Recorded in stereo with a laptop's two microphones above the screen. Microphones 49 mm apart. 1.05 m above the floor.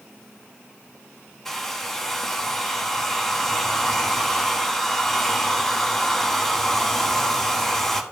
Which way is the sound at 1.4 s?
10° left (ahead or behind).